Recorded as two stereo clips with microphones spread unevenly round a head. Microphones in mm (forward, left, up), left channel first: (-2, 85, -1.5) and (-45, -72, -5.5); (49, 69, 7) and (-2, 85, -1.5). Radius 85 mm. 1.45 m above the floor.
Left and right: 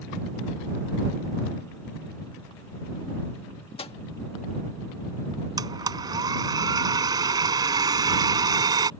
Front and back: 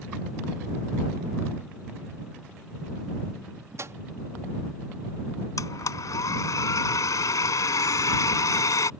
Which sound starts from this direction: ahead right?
A blender, at 5.6 s.